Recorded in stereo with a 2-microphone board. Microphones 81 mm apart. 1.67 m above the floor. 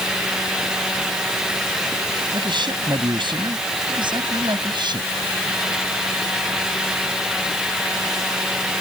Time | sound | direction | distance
2.3 | a man speaking | 70° right (ahead or behind) | ?